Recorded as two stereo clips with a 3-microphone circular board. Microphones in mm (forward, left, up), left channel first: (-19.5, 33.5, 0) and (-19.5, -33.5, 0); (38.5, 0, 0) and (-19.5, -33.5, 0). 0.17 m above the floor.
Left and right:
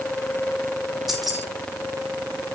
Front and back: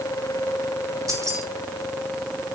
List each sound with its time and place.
1.1 s keys jangling: 175° right, 6 m